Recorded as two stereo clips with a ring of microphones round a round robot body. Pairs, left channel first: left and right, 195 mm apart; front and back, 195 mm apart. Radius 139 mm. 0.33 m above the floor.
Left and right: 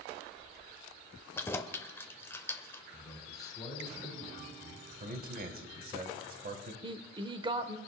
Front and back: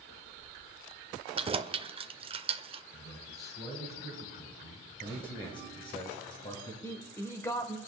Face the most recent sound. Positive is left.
turn(degrees=-60)